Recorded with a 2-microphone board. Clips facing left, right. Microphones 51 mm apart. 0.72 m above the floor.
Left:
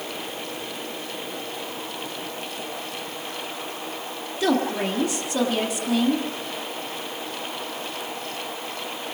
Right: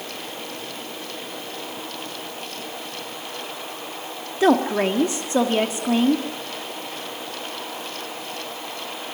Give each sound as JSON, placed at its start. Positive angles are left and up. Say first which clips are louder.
{"t": 4.4, "sound": "a woman speaking", "louder": "right 5 dB", "side_deg": -35, "distance_m": 1.4}